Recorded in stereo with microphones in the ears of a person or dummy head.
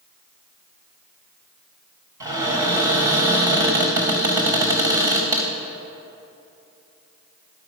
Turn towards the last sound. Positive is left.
turn(degrees=-15)  # may be behind; listen again after turning